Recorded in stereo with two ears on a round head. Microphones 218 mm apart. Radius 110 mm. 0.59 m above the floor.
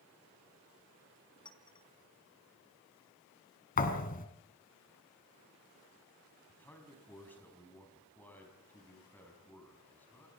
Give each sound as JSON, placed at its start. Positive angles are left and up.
{"t": 1.4, "sound": "a clink", "side_deg": 20, "distance_m": 4.0}
{"t": 3.8, "sound": "a thud", "side_deg": 35, "distance_m": 2.5}
{"t": 6.5, "sound": "a man speaking", "side_deg": 10, "distance_m": 4.5}